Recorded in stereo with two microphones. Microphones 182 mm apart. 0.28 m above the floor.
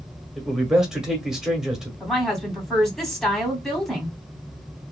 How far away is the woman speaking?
About 1.9 m.